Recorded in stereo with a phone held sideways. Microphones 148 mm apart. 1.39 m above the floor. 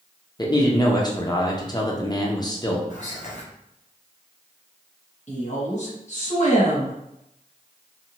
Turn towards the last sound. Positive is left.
turn(degrees=55)  # may be behind; listen again after turning